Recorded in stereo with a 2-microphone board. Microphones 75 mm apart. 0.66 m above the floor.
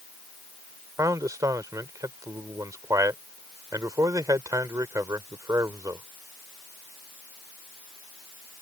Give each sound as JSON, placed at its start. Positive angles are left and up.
{"t": 1.0, "sound": "a man speaking", "side_deg": -45}